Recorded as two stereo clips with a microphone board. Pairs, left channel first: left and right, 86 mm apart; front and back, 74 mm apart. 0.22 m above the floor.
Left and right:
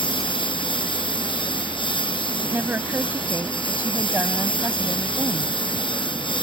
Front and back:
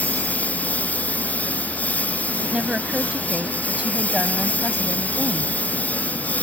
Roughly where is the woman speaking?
Behind right.